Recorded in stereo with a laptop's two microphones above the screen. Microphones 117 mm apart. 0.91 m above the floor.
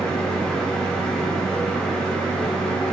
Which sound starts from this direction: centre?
A fan, at 0.0 s.